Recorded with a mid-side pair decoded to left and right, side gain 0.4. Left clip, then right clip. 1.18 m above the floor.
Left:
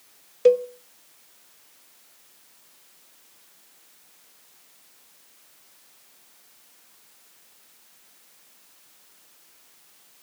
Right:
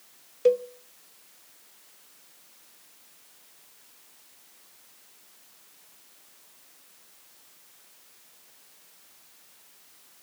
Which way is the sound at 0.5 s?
35° left.